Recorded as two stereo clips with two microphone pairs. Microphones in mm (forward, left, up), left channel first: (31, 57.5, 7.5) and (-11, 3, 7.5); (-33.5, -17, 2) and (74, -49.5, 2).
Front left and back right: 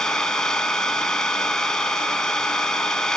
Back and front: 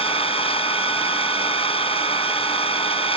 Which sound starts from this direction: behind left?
An engine running, at 0.0 s.